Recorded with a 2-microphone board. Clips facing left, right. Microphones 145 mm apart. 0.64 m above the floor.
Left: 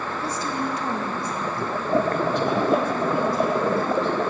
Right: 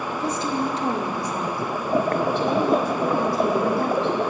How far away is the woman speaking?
About 2 m.